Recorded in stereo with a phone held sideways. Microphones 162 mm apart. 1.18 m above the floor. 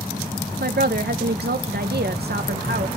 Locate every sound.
0.6 s a woman speaking: 80° right, 0.7 m